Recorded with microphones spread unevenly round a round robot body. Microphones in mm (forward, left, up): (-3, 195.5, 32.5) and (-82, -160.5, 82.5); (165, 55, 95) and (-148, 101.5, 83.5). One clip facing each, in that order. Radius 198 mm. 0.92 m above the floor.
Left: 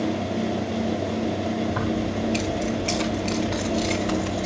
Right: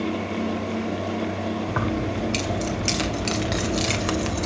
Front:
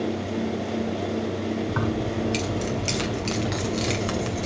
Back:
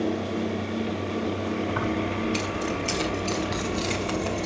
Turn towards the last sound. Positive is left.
turn(degrees=-75)